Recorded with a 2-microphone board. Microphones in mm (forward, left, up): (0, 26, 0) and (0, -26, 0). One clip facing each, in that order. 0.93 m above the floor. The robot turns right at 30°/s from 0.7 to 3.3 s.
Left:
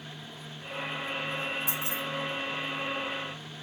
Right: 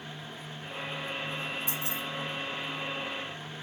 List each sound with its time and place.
1.7 s keys jangling: 45° right (ahead or behind), 2.5 m; by 2.0 s 35° right (ahead or behind), 2.5 m